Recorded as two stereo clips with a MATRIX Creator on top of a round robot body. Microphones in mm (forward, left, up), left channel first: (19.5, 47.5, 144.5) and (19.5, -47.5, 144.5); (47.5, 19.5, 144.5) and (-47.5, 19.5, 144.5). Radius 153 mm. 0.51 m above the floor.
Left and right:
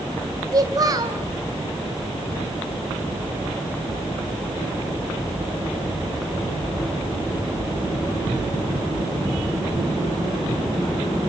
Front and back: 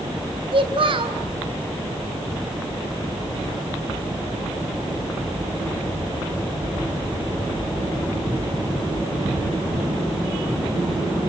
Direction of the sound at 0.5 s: 145° right.